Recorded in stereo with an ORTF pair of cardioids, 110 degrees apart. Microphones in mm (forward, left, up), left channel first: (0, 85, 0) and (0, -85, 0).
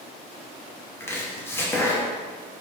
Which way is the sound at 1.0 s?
15° left.